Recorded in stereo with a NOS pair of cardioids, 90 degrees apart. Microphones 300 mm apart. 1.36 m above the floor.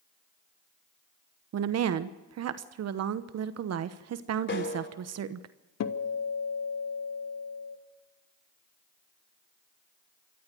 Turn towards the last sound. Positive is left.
turn(degrees=65)